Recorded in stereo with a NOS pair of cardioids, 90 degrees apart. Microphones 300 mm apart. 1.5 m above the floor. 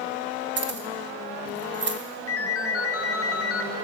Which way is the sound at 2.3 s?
50° left.